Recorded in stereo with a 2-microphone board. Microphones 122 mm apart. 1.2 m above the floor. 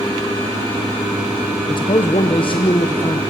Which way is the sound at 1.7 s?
40° left (ahead or behind).